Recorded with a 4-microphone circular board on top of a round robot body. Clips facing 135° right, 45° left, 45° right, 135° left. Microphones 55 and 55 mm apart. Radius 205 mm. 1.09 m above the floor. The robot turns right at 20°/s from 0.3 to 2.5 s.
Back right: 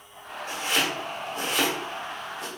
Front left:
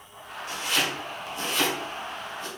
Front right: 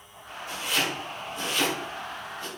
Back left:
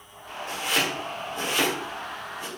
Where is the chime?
No chime in this recording.